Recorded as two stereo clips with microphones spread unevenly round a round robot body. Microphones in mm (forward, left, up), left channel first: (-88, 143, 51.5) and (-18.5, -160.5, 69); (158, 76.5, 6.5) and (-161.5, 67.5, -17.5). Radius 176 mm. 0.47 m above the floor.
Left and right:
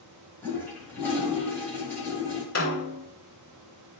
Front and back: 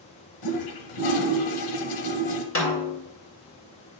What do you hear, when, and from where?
0.4 s a toilet flushing: 20° left, 1.1 m
2.5 s a snare drum: 45° left, 2.5 m